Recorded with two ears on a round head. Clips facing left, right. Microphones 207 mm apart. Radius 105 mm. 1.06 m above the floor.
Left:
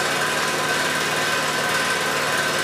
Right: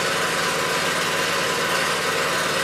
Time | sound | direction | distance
0.0 | an engine running | 55° left (ahead or behind) | 1.7 m